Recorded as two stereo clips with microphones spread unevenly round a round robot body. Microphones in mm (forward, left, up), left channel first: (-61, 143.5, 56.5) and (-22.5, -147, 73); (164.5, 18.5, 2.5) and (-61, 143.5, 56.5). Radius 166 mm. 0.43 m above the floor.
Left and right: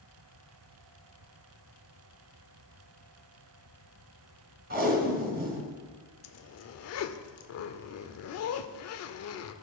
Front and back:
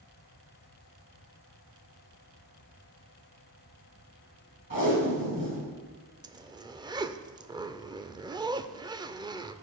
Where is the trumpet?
I don't hear a trumpet.